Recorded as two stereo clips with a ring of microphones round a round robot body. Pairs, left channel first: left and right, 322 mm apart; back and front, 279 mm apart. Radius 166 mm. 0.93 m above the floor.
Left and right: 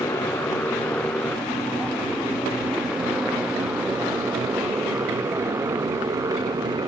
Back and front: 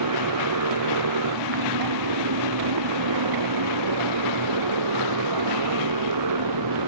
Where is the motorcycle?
5° left; by 6.9 s 10° right.